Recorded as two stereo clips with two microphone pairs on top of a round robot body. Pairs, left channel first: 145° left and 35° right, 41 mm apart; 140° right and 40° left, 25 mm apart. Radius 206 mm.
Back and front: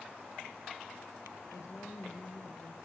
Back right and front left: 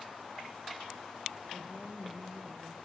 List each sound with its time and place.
1.5 s a woman speaking: 145° left, 4 m; by 2.8 s 165° left, 4.5 m